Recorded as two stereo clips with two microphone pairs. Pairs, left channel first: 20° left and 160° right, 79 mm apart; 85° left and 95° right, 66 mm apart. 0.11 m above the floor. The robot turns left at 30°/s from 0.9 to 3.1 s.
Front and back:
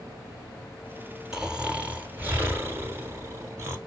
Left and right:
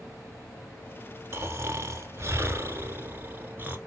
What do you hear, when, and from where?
1.3 s snoring: 80° right, 0.9 m; by 3.8 s 130° right, 0.9 m